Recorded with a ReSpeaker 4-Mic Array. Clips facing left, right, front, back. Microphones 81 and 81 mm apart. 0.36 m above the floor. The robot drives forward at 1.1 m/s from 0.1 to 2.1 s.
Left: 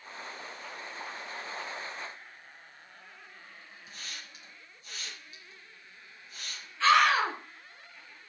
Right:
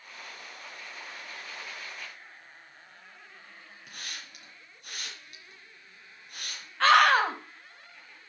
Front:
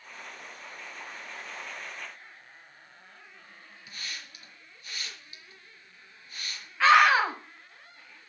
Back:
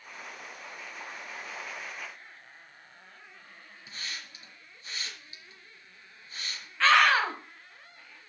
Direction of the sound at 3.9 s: 115° right.